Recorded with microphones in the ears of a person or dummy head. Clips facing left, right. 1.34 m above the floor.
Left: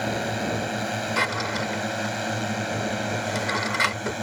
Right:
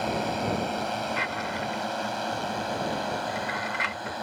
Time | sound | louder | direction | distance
0.0 | a drone | left 1 dB | 20° left (ahead or behind) | ?
1.2 | a drawer | left 4 dB | 60° left (ahead or behind) | ?